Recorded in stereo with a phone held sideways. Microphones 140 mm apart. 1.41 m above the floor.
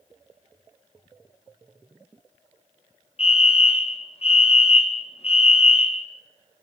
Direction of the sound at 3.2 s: 45° left (ahead or behind).